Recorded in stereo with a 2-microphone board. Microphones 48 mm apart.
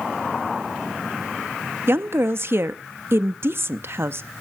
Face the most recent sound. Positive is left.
turn(degrees=-50)  # may be behind; listen again after turning